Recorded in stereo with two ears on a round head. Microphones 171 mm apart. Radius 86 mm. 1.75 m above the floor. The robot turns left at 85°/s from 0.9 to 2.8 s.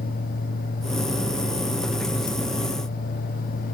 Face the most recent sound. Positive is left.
No sound to turn to.